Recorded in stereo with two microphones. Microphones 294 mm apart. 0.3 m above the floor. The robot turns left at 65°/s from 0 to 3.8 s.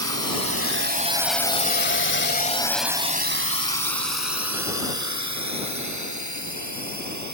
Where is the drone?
55° right (ahead or behind); by 7.3 s 75° right (ahead or behind).